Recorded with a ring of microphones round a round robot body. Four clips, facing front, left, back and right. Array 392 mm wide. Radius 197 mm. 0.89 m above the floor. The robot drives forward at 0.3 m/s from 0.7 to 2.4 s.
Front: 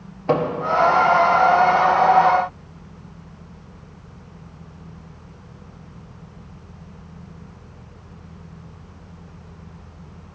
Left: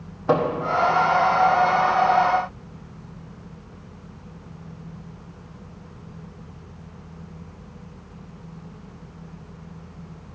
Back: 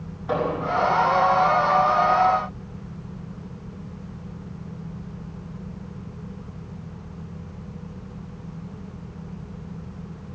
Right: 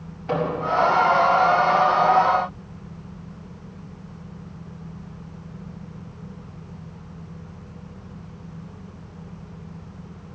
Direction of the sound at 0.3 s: 45° left.